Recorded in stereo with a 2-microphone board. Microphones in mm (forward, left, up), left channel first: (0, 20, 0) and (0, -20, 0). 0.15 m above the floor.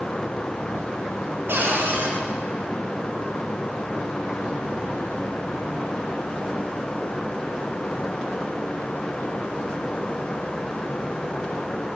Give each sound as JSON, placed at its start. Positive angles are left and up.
{"t": 1.5, "sound": "a cupboard door", "side_deg": -70, "distance_m": 4.5}